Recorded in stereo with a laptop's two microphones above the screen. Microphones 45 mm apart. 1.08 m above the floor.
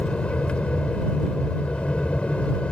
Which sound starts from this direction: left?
An aircraft, at 0.0 s.